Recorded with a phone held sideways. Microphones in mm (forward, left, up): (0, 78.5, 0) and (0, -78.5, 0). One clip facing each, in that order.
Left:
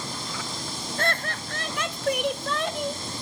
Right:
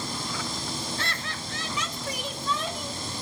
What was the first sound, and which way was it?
Laughter, 50° left (ahead or behind).